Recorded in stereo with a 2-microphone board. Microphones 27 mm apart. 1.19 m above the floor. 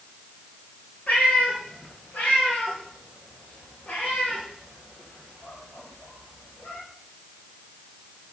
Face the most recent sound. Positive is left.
turn(degrees=60)  # may be behind; listen again after turning